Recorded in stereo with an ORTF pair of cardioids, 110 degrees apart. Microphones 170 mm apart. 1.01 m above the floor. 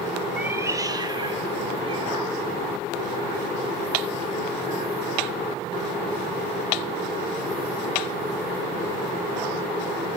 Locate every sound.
0.4 s a cat meowing: 5° right, 0.6 m; by 5.0 s 35° right, 5 m